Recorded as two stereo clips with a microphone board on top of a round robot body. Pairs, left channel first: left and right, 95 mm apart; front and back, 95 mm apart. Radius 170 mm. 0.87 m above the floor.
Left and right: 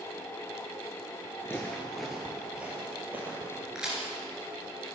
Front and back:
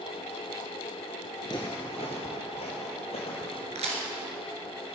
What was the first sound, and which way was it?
Footsteps, 35° left.